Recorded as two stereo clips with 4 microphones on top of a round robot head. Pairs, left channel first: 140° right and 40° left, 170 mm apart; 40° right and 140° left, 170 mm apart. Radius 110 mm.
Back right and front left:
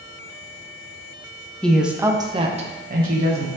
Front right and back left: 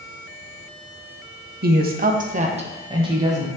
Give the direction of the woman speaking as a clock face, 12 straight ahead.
7 o'clock.